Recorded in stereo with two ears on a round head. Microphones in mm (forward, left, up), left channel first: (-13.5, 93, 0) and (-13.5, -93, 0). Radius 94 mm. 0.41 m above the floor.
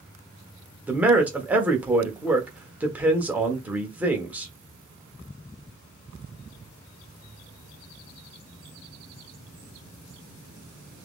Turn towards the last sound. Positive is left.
turn(degrees=-10)  # may be behind; listen again after turning